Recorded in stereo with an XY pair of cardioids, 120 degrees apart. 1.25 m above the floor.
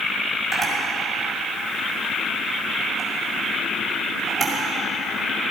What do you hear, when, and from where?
0.5 s a camera shutter: 25° right, 5.5 m